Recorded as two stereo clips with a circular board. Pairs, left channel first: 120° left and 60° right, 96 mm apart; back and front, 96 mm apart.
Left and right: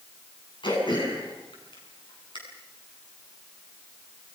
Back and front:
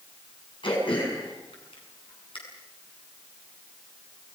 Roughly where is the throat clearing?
Behind left.